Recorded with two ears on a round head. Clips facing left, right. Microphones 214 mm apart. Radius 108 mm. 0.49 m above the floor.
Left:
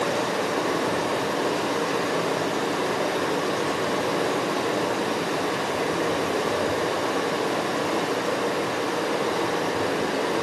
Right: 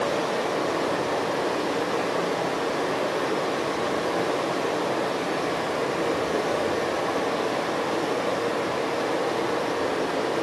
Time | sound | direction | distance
0.0 | running water | 50° left (ahead or behind) | 2.5 m